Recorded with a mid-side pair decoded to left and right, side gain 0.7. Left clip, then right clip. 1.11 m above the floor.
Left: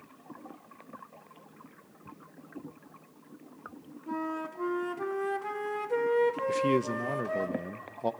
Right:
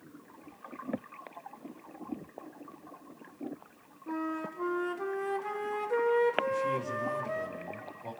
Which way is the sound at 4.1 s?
5° left.